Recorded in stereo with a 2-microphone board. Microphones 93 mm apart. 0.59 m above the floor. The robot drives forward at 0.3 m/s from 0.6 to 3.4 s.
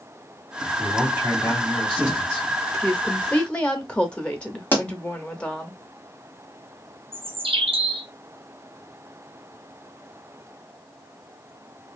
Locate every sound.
0.8 s a man speaking: 20° right (ahead or behind), 1.7 m; by 2.5 s 15° right (ahead or behind), 2 m
2.8 s a woman speaking: 10° left (ahead or behind), 0.7 m; by 5.7 s 15° left (ahead or behind), 0.6 m
4.7 s a pop: 20° left (ahead or behind), 1.3 m
7.1 s a bird: 85° right, 0.6 m